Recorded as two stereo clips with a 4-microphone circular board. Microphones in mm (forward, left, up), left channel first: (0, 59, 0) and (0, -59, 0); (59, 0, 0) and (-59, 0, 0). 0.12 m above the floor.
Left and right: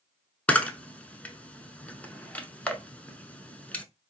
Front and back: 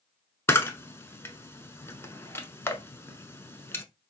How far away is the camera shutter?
About 0.7 m.